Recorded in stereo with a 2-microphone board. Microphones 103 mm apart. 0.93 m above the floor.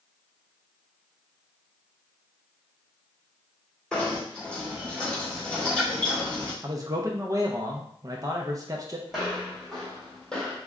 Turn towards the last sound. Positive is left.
turn(degrees=10)  # may be behind; listen again after turning